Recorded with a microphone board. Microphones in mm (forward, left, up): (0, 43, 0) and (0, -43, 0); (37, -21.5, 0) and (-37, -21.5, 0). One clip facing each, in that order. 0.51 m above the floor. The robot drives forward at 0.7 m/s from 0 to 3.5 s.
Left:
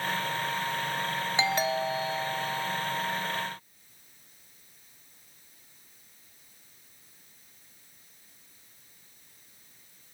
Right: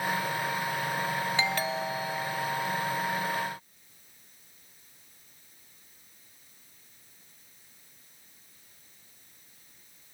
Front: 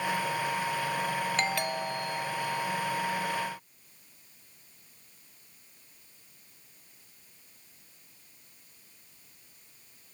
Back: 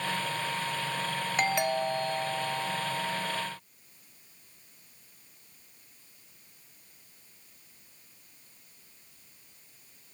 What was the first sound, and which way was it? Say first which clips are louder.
A doorbell: left 2 dB, back 3 dB; 130° left.